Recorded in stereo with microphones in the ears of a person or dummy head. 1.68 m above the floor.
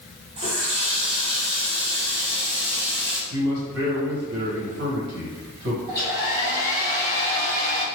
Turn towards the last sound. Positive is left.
turn(degrees=-15)  # may be behind; listen again after turning